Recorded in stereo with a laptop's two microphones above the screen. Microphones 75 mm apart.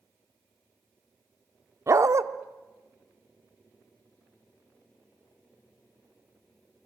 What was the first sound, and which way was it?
A dog barking, 45° right (ahead or behind).